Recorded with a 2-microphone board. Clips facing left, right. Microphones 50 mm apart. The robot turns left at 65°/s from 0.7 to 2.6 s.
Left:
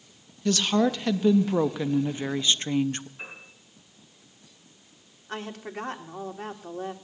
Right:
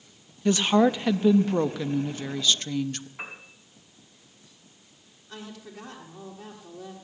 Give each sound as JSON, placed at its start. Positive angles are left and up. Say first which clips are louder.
{"t": 0.5, "sound": "a woman speaking", "louder": "right 3 dB", "side_deg": -20, "distance_m": 0.5}
{"t": 3.2, "sound": "a piano", "louder": "right 2 dB", "side_deg": -85, "distance_m": 4.0}
{"t": 5.3, "sound": "a woman speaking", "louder": "left 6 dB", "side_deg": 50, "distance_m": 1.6}